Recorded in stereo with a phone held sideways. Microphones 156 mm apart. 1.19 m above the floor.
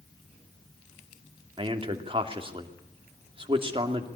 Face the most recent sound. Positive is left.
turn(degrees=-30)  # may be behind; listen again after turning